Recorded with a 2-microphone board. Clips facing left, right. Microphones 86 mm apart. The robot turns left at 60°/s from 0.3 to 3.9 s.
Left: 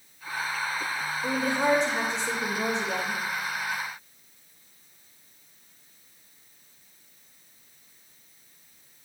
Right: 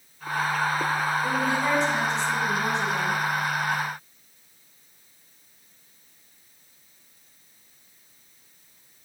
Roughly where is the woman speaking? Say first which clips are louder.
Right 1 dB; behind left.